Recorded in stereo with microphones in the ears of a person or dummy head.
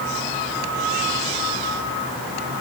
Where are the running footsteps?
No running footsteps in this recording.